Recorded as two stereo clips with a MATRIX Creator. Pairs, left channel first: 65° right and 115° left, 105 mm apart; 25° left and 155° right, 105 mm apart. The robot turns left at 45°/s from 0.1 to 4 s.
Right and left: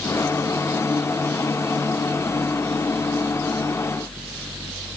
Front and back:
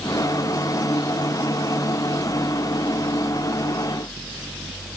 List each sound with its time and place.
Only background noise.